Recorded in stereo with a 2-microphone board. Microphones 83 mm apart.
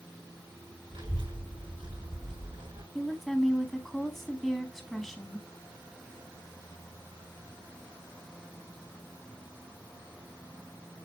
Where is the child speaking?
85° right, 6.5 m.